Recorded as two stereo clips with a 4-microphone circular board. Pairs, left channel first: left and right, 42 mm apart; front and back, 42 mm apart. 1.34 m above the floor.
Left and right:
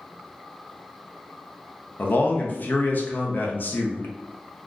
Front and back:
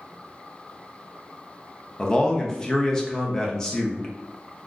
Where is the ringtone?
I don't hear a ringtone.